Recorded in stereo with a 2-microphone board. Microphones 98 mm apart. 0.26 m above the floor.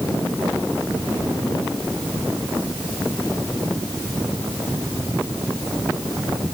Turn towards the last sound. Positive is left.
No sound to turn to.